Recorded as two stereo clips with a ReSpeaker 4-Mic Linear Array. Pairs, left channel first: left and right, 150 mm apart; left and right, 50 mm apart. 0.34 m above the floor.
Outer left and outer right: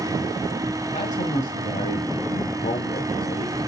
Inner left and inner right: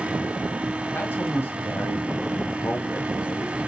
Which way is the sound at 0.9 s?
55° left (ahead or behind).